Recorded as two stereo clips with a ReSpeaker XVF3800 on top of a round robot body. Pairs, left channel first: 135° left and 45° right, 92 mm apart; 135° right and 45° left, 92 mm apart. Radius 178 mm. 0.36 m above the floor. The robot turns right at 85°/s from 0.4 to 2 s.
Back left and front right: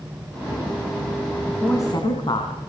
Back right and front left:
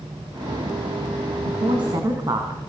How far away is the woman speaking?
About 4 m.